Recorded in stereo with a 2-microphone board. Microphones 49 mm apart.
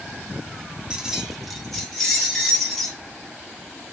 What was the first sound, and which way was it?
Keys jangling, 15° right (ahead or behind).